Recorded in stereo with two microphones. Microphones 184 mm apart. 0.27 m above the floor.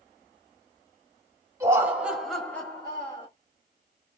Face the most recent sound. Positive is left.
turn(degrees=30)  # may be behind; listen again after turning